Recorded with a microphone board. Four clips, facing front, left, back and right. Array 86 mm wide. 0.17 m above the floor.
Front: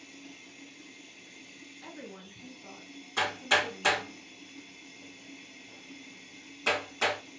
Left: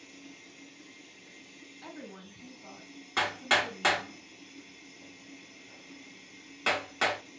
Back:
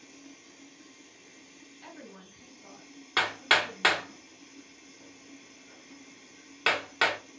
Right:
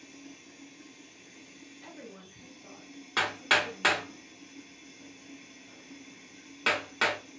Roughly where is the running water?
Ahead.